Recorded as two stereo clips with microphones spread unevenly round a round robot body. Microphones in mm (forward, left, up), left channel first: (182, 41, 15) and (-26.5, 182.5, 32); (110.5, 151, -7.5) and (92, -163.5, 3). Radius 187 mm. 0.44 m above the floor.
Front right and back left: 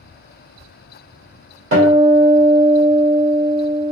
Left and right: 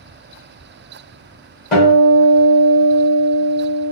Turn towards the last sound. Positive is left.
turn(degrees=145)